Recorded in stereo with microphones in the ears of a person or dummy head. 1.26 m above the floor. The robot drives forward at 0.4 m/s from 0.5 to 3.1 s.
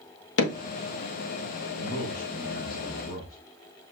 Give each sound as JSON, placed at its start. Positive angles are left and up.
{"t": 0.4, "sound": "hammering", "side_deg": 65, "distance_m": 1.4}
{"t": 1.8, "sound": "a man speaking", "side_deg": 65, "distance_m": 3.0}